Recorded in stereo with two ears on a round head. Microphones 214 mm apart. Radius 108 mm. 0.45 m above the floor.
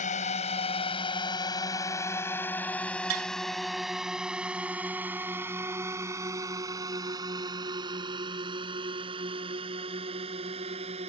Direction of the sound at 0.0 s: 30° left (ahead or behind).